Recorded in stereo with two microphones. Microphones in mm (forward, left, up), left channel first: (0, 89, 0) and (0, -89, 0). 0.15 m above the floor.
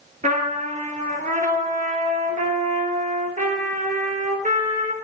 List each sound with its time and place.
0.2 s a trumpet: 45° right (ahead or behind), 1.2 m